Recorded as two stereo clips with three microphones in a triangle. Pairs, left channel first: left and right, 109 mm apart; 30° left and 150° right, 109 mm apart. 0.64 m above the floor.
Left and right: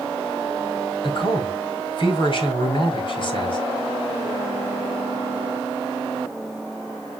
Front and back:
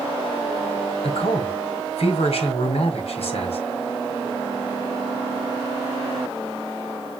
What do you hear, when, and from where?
1.0 s a man speaking: 50° left, 4.5 m